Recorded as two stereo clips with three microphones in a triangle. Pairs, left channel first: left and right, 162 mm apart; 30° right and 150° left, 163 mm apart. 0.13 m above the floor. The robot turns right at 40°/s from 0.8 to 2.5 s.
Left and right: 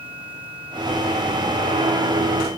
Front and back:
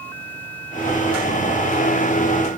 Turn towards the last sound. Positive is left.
No sound to turn to.